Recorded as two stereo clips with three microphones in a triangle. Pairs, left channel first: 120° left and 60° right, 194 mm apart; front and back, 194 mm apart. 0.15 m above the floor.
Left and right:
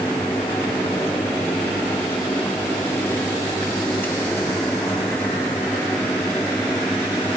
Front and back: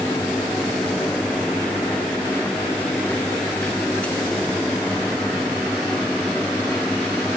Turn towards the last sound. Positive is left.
No sound to turn to.